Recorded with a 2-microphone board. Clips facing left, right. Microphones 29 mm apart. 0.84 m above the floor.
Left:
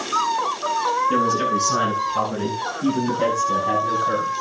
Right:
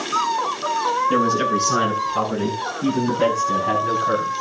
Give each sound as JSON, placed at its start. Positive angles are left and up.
{"t": 1.1, "sound": "a man speaking", "side_deg": -10, "distance_m": 8.5}